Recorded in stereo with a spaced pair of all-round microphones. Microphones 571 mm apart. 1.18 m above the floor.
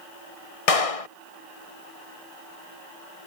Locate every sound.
0.7 s a clap: 75° left (ahead or behind)